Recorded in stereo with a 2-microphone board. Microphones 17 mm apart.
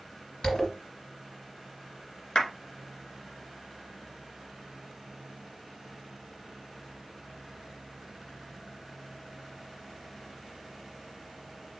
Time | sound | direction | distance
0.4 | a zipper | 45° left (ahead or behind) | 1.8 m
2.4 | a clap | 50° left (ahead or behind) | 1.5 m